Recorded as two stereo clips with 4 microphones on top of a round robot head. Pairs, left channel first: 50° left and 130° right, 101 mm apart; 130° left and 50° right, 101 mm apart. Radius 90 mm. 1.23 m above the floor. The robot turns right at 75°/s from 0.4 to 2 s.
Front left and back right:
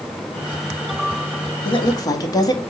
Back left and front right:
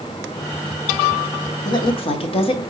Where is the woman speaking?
75° left, 1.3 m; by 2.6 s 105° left, 1.3 m.